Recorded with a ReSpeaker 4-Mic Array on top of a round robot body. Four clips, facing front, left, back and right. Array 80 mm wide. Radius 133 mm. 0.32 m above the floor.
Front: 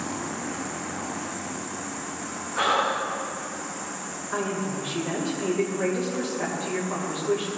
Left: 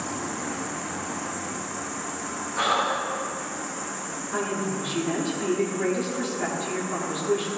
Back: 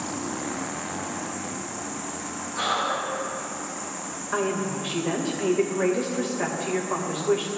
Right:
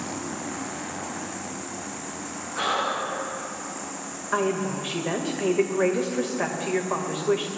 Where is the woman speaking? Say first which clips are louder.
Right 4 dB, back 2 dB; 105° right, 2 m.